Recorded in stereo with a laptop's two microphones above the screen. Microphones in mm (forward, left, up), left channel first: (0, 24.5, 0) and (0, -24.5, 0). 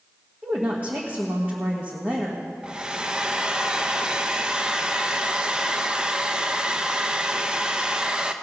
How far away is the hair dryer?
About 0.7 m.